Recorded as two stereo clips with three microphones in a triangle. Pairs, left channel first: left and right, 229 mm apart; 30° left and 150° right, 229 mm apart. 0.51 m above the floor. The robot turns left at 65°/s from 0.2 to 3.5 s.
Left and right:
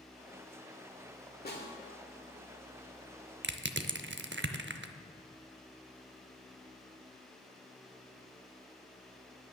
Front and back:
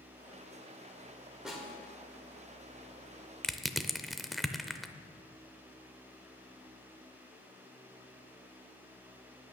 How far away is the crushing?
About 0.6 m.